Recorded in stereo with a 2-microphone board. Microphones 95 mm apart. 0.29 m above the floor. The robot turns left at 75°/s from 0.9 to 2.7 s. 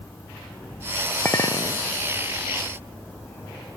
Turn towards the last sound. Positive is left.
turn(degrees=45)